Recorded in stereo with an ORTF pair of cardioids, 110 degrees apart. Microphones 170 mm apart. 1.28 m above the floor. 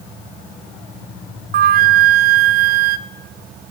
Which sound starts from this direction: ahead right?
A flute, at 1.5 s.